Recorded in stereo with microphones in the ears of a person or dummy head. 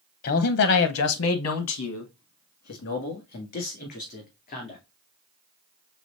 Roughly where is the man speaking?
Left.